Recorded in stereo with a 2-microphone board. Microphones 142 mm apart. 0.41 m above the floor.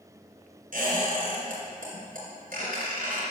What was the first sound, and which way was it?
A squeak, 75° right (ahead or behind).